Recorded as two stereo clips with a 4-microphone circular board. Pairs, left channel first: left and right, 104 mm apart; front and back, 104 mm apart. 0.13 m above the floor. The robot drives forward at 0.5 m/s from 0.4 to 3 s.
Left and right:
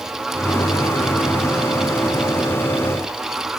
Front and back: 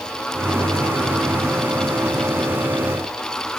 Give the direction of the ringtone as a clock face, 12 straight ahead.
No ringtone in this recording.